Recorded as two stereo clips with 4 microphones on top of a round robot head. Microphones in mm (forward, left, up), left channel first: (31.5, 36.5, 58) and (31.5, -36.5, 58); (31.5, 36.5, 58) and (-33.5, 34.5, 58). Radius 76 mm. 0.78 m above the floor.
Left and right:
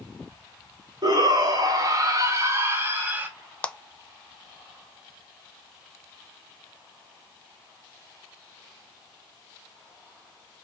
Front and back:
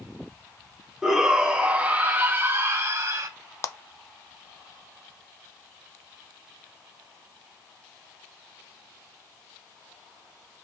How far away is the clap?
About 0.6 m.